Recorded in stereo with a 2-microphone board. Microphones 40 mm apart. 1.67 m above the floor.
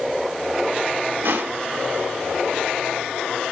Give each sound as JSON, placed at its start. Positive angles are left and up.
{"t": 1.2, "sound": "crushing", "side_deg": -70, "distance_m": 2.5}